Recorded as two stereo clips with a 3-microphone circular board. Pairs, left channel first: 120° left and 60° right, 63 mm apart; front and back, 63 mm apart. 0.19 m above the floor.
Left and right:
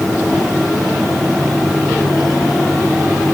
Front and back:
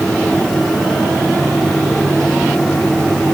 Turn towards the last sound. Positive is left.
No sound to turn to.